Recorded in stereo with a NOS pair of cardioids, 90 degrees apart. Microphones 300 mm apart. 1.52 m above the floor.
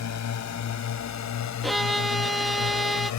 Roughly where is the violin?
Ahead.